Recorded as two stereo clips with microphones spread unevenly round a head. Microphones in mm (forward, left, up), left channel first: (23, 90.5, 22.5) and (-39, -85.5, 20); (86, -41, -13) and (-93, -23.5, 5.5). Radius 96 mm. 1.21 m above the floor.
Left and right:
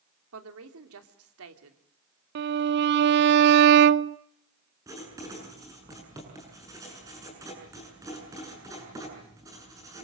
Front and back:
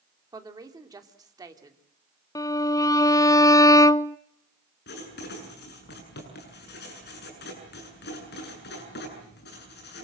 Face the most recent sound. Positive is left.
turn(degrees=-35)